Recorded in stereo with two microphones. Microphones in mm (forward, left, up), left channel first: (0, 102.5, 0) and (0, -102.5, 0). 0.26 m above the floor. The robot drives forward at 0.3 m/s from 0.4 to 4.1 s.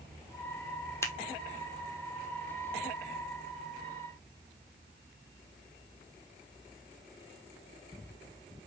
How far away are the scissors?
About 1.2 m.